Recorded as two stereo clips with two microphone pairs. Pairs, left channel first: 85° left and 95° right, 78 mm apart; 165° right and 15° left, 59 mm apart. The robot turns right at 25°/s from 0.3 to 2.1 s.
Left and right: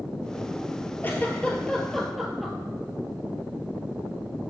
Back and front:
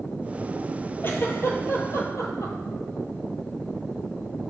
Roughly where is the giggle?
Behind left.